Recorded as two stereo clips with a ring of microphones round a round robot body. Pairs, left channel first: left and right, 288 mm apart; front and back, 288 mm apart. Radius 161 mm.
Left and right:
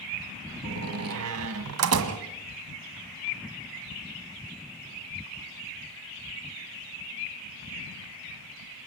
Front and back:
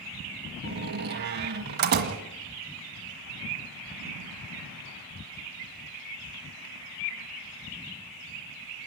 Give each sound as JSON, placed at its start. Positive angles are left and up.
{"t": 0.6, "sound": "a door slam", "azimuth_deg": -125, "distance_m": 1.8}